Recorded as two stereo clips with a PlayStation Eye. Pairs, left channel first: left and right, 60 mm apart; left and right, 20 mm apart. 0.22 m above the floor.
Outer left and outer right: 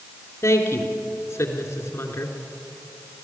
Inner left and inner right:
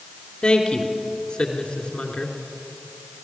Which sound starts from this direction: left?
A woman speaking, at 0.4 s.